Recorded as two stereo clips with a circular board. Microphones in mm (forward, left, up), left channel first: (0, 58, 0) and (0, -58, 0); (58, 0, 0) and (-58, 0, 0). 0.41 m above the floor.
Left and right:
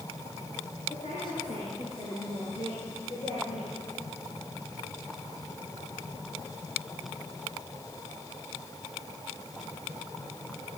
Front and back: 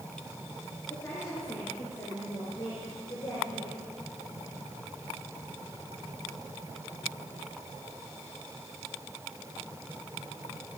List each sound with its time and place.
0.9 s a woman speaking: 70° left, 6 m; by 3.8 s 60° left, 9.5 m